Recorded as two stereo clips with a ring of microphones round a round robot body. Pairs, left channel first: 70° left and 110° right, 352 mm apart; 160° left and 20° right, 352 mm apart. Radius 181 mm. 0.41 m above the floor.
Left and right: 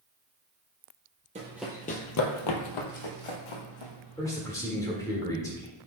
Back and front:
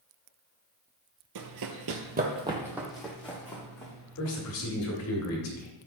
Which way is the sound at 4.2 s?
145° left.